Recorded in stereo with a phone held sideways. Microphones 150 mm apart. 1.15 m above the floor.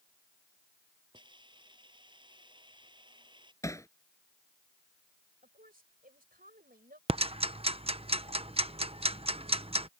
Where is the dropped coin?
No dropped coin in this recording.